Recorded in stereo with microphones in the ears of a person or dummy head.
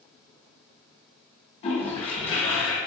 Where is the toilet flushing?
35° left (ahead or behind), 1.4 m.